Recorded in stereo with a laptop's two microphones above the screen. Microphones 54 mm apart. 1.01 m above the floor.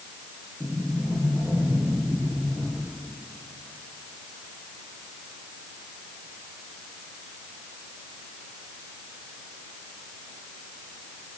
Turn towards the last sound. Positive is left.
turn(degrees=-15)  # may be behind; listen again after turning